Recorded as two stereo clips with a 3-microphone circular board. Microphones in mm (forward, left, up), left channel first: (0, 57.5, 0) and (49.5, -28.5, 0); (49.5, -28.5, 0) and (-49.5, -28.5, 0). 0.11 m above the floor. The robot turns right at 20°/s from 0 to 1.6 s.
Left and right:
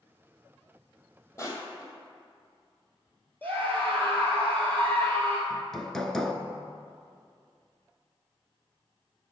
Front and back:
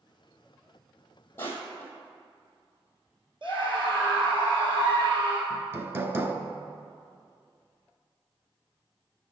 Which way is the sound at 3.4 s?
170° right.